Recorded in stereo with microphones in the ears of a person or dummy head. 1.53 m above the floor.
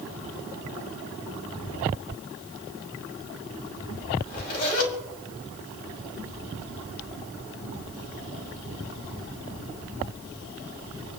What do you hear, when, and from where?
4.2 s a zipper: 50° left (ahead or behind), 2.5 m